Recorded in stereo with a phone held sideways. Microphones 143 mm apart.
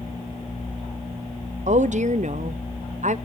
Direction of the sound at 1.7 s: 55° right (ahead or behind).